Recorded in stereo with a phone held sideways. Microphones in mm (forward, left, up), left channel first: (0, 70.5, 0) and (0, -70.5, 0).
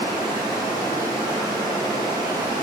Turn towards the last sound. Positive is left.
turn(degrees=-30)  # may be behind; listen again after turning